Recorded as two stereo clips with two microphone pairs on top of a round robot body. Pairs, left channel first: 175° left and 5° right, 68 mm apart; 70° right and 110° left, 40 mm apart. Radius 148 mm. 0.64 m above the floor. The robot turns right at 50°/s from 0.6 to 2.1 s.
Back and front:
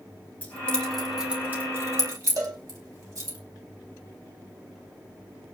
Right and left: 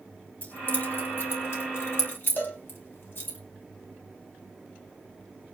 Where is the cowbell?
35° right, 5 m.